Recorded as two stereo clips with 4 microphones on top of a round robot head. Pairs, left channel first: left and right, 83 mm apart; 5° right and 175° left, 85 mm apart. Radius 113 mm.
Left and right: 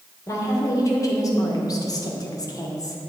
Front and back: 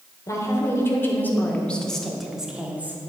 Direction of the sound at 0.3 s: 45° left.